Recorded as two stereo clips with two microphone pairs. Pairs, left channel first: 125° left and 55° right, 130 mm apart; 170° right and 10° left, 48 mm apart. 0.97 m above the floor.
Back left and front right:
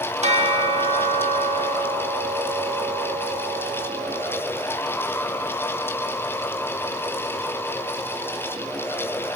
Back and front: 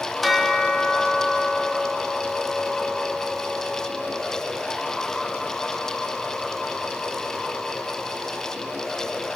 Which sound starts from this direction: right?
A bell, at 0.2 s.